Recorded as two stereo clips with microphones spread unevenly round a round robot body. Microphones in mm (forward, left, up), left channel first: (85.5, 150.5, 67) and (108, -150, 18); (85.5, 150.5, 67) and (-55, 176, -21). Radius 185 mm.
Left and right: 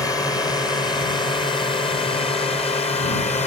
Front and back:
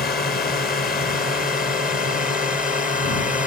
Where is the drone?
10° left; by 3.5 s 30° left.